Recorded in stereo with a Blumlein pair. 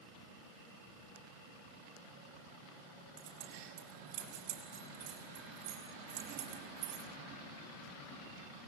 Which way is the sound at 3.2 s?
45° right.